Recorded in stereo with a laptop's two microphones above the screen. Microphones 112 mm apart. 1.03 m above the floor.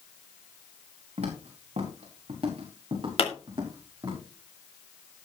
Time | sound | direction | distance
1.2 | footsteps | 70° right (ahead or behind) | 4 m
3.2 | a pop | 55° left (ahead or behind) | 2.5 m